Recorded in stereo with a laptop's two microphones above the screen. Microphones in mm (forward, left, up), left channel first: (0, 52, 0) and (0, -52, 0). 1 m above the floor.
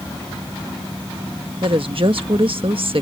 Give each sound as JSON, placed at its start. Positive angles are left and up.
{"t": 1.6, "sound": "a woman speaking", "side_deg": -60}